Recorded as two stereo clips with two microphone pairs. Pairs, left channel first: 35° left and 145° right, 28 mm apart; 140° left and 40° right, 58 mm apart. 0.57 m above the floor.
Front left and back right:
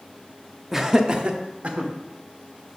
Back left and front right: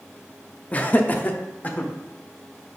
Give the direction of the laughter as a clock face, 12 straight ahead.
7 o'clock.